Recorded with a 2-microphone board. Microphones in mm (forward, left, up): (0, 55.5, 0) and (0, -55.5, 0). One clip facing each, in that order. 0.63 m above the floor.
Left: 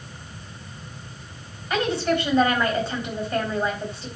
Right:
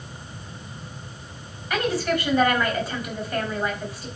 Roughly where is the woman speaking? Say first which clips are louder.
Left 1 dB; left.